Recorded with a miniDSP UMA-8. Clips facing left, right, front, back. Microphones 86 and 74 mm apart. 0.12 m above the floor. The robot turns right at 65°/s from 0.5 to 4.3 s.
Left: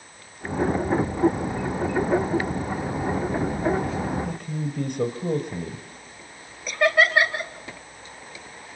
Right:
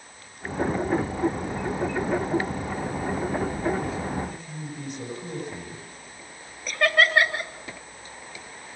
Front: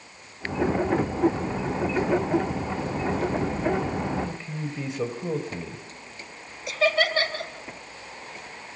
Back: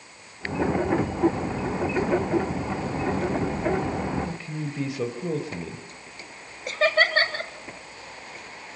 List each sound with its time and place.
4.2 s a man speaking: 95° left, 2 m; by 5.8 s 100° left, 2 m
6.7 s laughter: 175° left, 2 m